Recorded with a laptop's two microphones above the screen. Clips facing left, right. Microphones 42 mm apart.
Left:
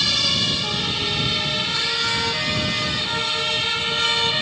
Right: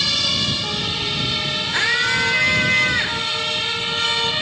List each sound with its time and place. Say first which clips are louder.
1.7 s a scream: right 5 dB; 50° right (ahead or behind)